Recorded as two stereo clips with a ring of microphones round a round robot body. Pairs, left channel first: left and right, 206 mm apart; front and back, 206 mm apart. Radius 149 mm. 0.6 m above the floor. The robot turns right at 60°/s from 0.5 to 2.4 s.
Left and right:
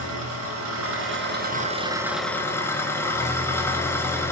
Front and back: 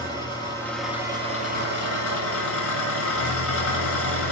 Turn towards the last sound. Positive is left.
turn(degrees=10)